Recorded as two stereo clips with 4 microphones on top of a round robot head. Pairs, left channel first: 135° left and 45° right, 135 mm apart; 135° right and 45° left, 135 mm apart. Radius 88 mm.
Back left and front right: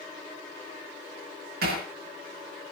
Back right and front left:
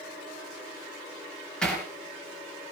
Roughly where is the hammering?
Ahead right.